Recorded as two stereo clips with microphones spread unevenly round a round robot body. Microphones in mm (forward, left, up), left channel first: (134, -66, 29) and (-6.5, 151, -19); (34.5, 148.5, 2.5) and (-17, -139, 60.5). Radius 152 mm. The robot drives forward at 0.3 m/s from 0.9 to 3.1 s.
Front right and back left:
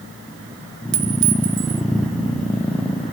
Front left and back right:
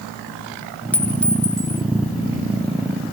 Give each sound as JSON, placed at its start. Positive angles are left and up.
{"t": 0.9, "sound": "a clink", "azimuth_deg": 160, "distance_m": 0.9}